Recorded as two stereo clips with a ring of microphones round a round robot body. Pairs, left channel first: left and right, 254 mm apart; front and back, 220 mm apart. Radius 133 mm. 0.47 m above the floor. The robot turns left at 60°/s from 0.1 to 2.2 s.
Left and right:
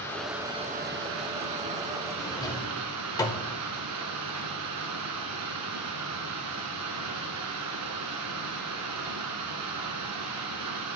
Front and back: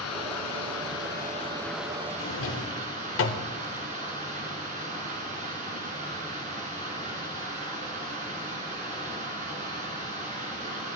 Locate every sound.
0.0 s running water: 10° left, 2.0 m; by 11.0 s 115° right, 2.0 m
2.2 s a drawer: 15° left, 1.2 m